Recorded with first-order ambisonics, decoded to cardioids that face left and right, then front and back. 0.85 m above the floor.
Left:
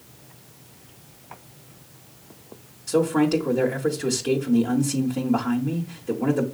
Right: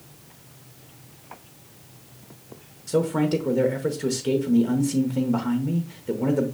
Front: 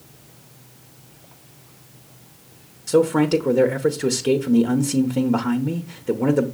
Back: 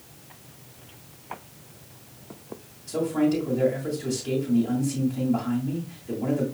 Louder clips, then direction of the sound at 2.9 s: Left 2 dB, front 8 dB; 5° right.